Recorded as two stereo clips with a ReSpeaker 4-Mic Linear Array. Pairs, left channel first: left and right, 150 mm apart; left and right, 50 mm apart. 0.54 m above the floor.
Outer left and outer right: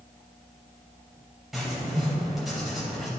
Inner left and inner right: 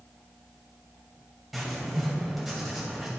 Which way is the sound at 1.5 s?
Centre (ahead or behind).